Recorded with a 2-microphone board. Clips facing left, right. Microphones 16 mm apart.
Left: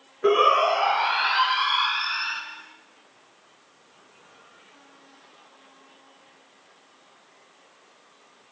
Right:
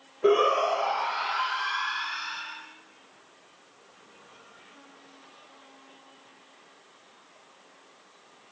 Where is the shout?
20° left (ahead or behind), 1.0 m; by 2.4 s 60° left (ahead or behind), 3 m.